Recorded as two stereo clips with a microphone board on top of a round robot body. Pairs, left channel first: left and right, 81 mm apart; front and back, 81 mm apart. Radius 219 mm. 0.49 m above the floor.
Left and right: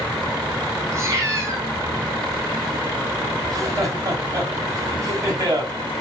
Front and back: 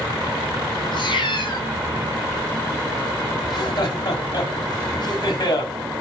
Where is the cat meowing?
30° right, 3.5 m.